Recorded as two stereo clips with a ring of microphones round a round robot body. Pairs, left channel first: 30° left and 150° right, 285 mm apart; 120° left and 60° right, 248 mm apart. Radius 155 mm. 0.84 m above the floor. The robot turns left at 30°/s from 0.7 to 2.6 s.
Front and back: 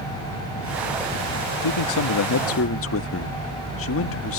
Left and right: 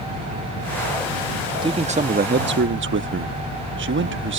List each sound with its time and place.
1.6 s a man speaking: 15° left; by 4.4 s 15° right